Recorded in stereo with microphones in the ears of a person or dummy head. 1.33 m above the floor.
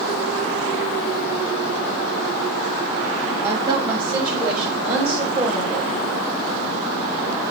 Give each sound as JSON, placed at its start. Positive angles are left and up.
{"t": 3.4, "sound": "a woman speaking", "side_deg": -10, "distance_m": 8.0}